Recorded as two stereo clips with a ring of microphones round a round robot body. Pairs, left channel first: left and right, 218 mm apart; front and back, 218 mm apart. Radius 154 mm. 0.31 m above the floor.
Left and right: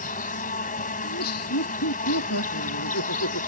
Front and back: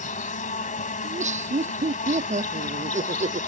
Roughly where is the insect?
Ahead left.